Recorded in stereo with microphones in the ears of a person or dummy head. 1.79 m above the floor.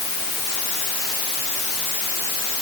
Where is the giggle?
No giggle in this recording.